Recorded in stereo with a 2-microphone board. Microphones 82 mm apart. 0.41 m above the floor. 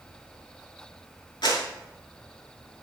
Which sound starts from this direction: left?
A clap, at 1.4 s.